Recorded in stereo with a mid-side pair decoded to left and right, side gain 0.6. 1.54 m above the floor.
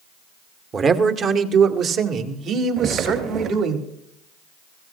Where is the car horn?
I don't hear a car horn.